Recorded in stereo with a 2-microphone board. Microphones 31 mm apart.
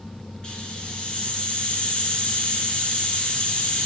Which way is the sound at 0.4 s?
30° left (ahead or behind).